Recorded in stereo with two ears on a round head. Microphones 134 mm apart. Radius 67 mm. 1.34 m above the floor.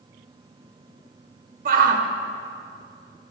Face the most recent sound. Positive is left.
turn(degrees=-55)  # may be behind; listen again after turning